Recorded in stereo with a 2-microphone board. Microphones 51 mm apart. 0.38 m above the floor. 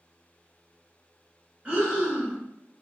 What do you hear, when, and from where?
1.6 s breathing: 25° right (ahead or behind), 1.5 m